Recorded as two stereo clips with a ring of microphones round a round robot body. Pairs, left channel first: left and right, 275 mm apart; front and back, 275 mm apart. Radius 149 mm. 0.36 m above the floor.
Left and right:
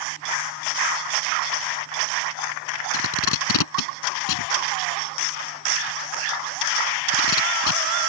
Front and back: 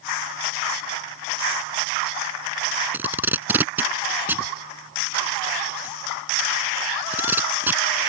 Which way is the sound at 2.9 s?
95° left.